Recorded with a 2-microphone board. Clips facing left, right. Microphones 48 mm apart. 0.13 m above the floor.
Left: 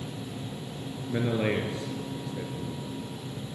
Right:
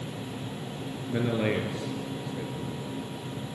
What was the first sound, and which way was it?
A man speaking, centre (ahead or behind).